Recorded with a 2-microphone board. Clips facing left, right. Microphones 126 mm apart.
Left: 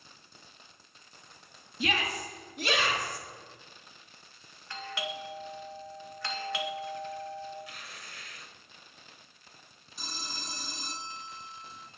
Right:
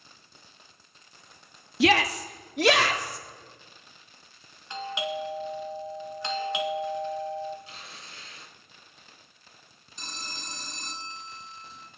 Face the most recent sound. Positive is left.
turn(degrees=5)  # may be behind; listen again after turning